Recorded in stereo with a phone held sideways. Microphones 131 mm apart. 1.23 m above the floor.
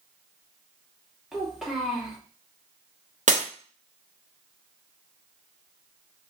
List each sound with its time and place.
1.3 s a child speaking: 5° right (ahead or behind), 1.7 m
3.3 s breaking glass: 75° right (ahead or behind), 1.0 m